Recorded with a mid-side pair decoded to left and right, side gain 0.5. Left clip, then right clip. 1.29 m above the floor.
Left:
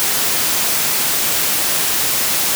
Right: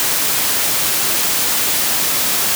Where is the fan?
I don't hear a fan.